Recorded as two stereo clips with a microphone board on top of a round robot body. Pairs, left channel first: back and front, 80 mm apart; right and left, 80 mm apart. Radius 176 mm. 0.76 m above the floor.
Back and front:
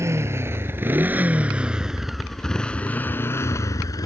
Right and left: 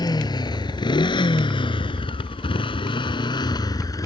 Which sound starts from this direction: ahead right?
A motorcycle, at 0.0 s.